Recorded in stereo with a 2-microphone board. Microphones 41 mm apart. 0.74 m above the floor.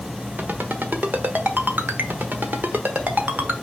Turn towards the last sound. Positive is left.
turn(degrees=-50)  # may be behind; listen again after turning